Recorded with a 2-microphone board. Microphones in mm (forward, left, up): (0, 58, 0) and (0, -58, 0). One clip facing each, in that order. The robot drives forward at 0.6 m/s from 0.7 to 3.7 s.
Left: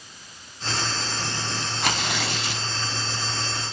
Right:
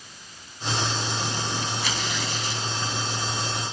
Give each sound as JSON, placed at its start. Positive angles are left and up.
{"t": 1.8, "sound": "tearing paper", "side_deg": 55, "distance_m": 0.6}